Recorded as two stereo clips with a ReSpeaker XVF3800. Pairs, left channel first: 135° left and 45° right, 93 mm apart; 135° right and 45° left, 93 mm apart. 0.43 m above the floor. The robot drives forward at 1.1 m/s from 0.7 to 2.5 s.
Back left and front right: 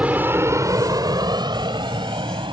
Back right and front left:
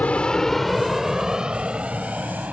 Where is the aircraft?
90° right; by 2.5 s 30° right.